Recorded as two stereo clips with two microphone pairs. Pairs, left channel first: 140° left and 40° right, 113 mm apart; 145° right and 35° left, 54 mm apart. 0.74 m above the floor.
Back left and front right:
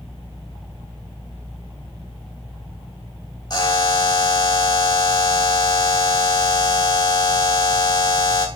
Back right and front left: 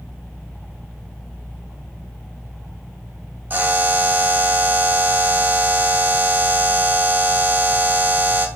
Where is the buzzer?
85° left, 3.5 m.